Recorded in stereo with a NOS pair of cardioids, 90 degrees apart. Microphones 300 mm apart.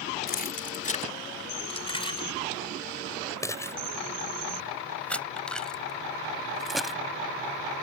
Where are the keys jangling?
30° left; by 7.0 s straight ahead.